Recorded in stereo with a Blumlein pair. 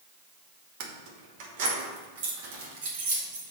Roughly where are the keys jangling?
Ahead right.